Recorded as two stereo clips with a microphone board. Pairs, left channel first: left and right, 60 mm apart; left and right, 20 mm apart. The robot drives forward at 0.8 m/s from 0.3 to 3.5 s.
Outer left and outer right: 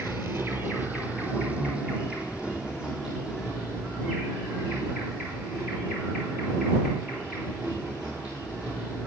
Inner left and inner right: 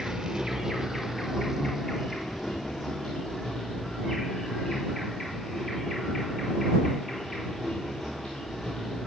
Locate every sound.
0.0 s an insect: 45° right (ahead or behind), 1.2 m; by 9.1 s 15° right (ahead or behind), 3.5 m